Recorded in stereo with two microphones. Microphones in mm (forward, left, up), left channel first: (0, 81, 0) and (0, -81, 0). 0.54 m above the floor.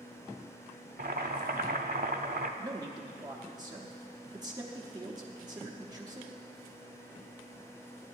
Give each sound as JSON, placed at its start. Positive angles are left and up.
{"t": 1.0, "sound": "boiling", "side_deg": -70, "distance_m": 0.6}
{"t": 2.6, "sound": "a man speaking", "side_deg": -25, "distance_m": 0.7}